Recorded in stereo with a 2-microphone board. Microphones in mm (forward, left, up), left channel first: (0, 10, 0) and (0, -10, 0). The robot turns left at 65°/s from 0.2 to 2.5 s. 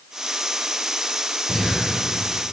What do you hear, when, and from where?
1.5 s breathing: 45° right (ahead or behind), 2.5 m; by 1.8 s 30° right (ahead or behind), 2.5 m